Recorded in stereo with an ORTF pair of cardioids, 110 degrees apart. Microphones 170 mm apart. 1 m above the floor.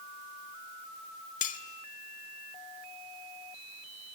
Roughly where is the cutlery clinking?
Ahead left.